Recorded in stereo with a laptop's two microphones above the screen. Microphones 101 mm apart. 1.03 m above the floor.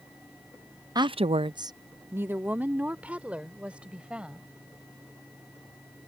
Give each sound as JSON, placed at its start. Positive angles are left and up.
{"t": 0.9, "sound": "a woman speaking", "side_deg": -40}